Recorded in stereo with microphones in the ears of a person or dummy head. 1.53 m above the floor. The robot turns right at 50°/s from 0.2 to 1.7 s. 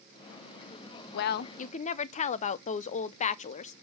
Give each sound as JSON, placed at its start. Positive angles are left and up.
{"t": 1.1, "sound": "a woman speaking", "side_deg": 55, "distance_m": 0.5}